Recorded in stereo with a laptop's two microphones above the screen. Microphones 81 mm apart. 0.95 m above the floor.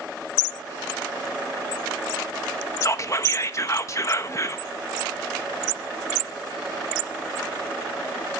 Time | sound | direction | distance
2.8 | whispering | 40° left (ahead or behind) | 1.0 m